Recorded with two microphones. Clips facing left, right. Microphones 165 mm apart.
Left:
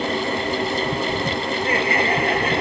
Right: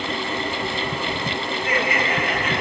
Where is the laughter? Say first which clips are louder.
Left 2 dB; 35° left (ahead or behind), 6 m.